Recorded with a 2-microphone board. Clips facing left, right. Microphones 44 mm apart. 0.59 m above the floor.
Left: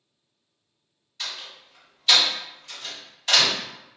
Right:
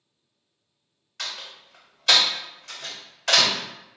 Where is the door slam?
65° right (ahead or behind), 1.7 m.